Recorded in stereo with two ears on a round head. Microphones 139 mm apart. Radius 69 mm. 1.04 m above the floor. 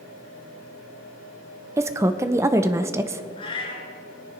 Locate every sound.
1.8 s a woman speaking: 20° right (ahead or behind), 0.7 m
3.4 s a cat meowing: 35° left (ahead or behind), 3 m